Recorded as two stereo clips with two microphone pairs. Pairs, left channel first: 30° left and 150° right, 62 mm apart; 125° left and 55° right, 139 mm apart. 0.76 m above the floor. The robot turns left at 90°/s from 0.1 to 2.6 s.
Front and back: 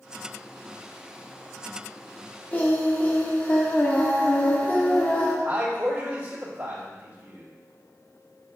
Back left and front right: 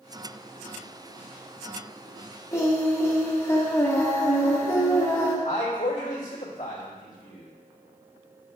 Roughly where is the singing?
Left.